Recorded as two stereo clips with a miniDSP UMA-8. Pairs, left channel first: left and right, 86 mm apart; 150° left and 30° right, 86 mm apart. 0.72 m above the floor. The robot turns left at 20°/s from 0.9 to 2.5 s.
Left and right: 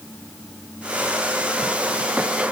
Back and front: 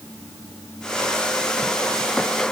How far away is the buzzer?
No buzzer in this recording.